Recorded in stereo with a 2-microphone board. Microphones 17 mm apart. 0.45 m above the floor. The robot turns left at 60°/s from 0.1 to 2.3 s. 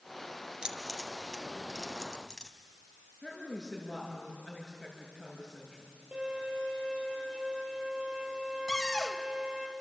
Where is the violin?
85° right, 7.5 m.